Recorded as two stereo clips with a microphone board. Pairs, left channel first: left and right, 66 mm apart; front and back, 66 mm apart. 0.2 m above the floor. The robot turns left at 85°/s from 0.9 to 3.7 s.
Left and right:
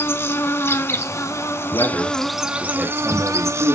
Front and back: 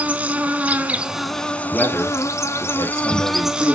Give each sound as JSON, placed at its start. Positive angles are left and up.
{"t": 0.0, "sound": "an insect", "azimuth_deg": 120, "distance_m": 1.0}
{"t": 1.6, "sound": "a man speaking", "azimuth_deg": 90, "distance_m": 3.0}